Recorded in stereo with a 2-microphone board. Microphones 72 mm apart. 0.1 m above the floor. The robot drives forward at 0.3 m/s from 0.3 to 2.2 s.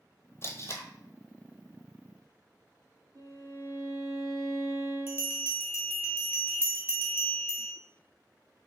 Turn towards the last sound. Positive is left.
turn(degrees=-30)  # may be behind; listen again after turning